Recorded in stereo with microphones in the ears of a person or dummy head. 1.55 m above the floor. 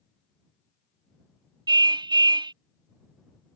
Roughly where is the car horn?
Right.